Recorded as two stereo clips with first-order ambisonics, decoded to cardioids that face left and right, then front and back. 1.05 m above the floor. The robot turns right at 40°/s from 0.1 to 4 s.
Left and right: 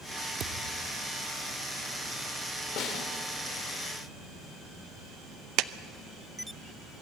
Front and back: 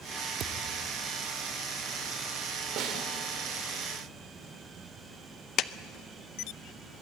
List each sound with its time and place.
0.4 s a thud: 135° right, 1.0 m; by 0.9 s 110° right, 1.0 m
2.8 s a snare drum: 135° left, 3 m; by 3.1 s 150° left, 3 m
5.6 s a clap: 50° right, 0.6 m